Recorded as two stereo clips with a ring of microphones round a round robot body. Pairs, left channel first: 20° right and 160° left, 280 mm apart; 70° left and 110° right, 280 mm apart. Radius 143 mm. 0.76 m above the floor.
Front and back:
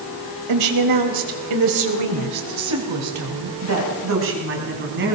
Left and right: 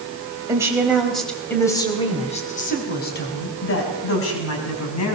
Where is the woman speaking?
170° left, 4 m; by 5.2 s 105° left, 6 m.